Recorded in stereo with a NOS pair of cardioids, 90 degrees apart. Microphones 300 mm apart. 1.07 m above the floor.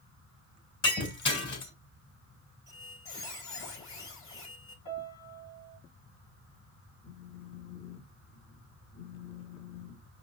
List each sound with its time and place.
0.8 s breaking glass: 40° left, 3.5 m
2.7 s a squeak: 45° left, 3.5 m
4.8 s a piano: 65° left, 2.5 m
7.0 s a phone buzzing: 40° left, 1.1 m